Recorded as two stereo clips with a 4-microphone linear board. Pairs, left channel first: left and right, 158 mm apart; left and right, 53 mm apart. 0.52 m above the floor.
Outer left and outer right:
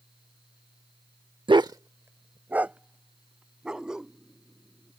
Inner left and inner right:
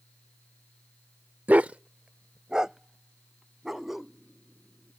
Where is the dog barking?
35° right (ahead or behind); by 4.9 s 5° right (ahead or behind).